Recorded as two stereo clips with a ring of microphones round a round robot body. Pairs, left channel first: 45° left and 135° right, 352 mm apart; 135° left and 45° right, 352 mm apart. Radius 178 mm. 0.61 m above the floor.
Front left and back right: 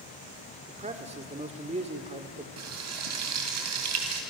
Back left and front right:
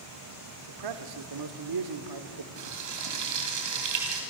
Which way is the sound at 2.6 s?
85° right.